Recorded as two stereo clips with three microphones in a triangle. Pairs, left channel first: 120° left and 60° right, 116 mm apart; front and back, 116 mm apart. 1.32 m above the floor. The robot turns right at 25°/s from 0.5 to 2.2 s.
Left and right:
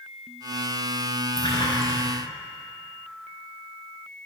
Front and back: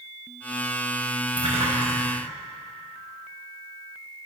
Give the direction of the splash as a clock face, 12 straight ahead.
7 o'clock.